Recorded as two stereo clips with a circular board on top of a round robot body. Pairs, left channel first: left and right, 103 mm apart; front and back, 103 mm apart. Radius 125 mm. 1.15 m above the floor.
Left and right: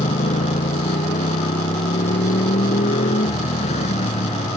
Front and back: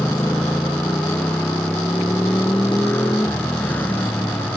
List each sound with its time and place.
0.0 s a motorcycle: 75° left